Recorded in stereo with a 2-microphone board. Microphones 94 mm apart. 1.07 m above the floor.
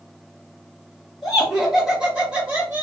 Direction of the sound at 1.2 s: 5° left (ahead or behind).